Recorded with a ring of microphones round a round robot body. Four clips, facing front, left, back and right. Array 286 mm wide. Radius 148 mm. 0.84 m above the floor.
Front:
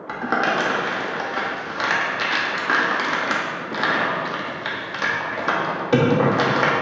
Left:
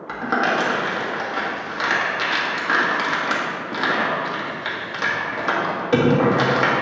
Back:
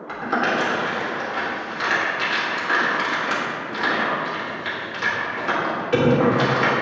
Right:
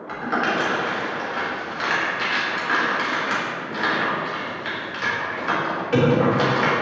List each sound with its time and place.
0.1 s crumpling: 30° left, 1.8 m